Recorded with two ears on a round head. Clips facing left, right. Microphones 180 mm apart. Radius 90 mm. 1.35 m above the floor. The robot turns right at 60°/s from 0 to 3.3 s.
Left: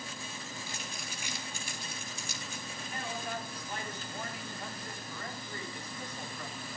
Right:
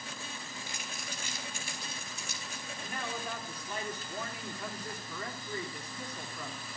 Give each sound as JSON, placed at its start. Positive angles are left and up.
{"t": 0.7, "sound": "crumpling", "side_deg": -20, "distance_m": 3.0}
{"t": 2.8, "sound": "a man speaking", "azimuth_deg": -135, "distance_m": 4.0}